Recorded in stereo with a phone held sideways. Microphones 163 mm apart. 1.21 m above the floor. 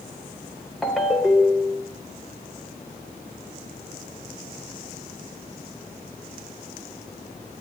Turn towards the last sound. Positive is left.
turn(degrees=0)  # may be behind; listen again after turning